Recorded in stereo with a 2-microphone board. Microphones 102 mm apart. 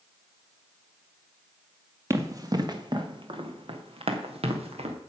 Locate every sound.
2.1 s running footsteps: 30° right (ahead or behind), 2 m; by 5.0 s 80° right, 3 m